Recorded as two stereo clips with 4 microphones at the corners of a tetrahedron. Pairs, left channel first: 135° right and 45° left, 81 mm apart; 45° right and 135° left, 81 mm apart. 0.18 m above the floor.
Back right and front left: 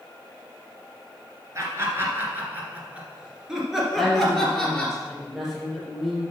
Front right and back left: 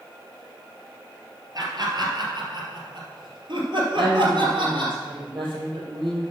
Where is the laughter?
100° left, 2.5 m; by 5.0 s 145° left, 3 m.